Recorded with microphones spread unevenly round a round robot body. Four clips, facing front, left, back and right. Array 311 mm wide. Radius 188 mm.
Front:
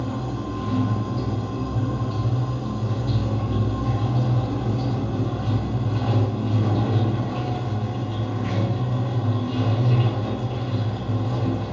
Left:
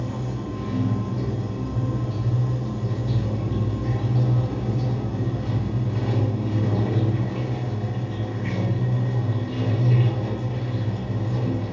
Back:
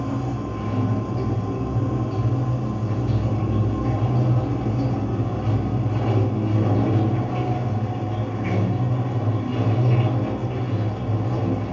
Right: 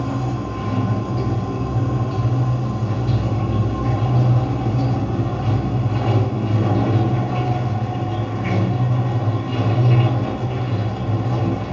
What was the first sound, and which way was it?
Running water, 90° right.